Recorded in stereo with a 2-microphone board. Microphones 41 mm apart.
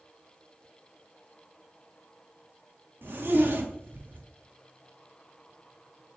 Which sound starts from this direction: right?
A zipper, at 3.0 s.